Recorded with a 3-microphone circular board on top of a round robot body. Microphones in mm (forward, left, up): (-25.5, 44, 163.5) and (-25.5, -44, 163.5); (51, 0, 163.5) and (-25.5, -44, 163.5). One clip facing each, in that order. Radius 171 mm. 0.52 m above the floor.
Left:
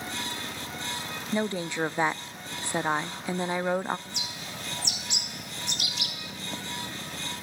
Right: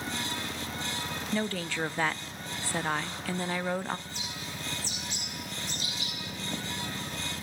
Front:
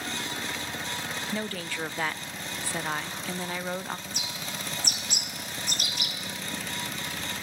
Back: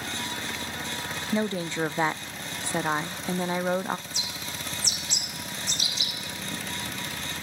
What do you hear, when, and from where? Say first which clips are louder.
1.3 s a woman speaking: left 4 dB, back 9 dB; 155° left, 0.8 m
4.1 s a bird: left 1 dB, even; 70° left, 3.5 m